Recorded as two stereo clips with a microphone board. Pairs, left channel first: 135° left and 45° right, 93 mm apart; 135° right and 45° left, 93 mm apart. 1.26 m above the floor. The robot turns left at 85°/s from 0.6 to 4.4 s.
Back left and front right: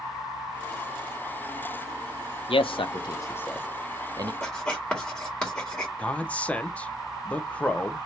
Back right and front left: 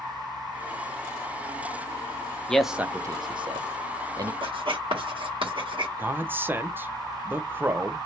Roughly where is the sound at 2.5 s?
Behind left.